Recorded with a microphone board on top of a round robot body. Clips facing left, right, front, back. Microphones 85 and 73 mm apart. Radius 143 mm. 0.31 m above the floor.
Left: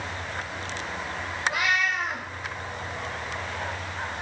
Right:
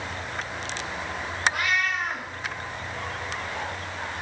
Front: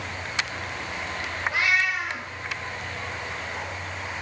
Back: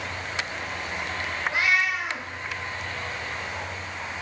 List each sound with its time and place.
1.5 s a cat meowing: 85° left, 2 m